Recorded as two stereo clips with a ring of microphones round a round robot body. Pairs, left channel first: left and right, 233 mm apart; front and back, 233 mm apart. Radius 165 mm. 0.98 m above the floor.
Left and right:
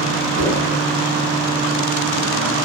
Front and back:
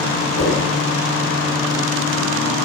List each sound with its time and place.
0.4 s a whoosh: 35° right, 4.5 m